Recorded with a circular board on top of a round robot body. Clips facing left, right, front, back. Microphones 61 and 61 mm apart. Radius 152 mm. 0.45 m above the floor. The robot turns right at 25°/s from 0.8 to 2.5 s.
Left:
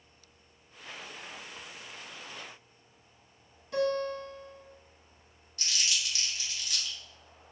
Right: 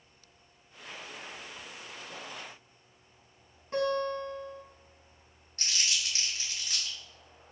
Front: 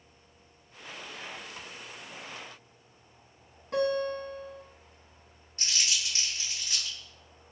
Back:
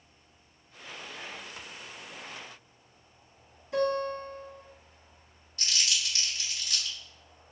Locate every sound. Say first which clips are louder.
3.7 s a guitar: even, even; 35° right, 1.4 m
5.6 s crumpling: even, back 1 dB; 50° right, 1.9 m